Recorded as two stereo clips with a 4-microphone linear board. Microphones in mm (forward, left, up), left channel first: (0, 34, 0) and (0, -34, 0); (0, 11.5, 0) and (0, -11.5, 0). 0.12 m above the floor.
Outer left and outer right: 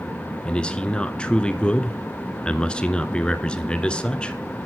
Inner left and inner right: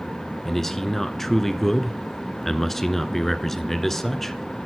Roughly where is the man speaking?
Centre.